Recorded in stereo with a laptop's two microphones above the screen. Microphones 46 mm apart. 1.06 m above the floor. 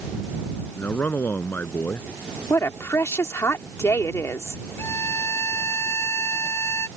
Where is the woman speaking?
80° left.